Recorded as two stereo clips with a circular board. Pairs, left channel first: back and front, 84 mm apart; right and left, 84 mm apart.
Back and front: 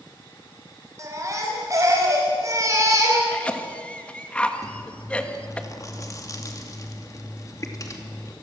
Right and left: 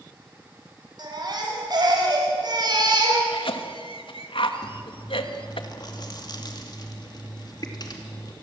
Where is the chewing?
130° right, 2.5 m.